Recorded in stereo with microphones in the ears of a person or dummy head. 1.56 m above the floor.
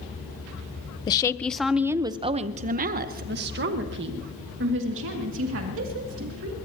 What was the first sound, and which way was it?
A woman speaking, 25° left (ahead or behind).